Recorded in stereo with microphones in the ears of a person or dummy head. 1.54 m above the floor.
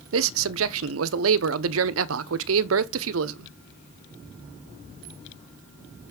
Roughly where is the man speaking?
Right.